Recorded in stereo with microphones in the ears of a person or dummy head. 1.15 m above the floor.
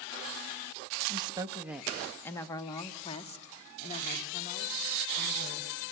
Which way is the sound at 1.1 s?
30° right (ahead or behind).